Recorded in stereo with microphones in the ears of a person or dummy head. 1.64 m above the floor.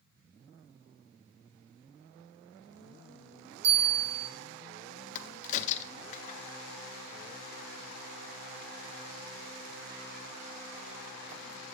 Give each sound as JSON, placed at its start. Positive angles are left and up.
{"t": 3.6, "sound": "a bell", "side_deg": -85, "distance_m": 2.0}
{"t": 5.2, "sound": "a crack", "side_deg": 40, "distance_m": 0.5}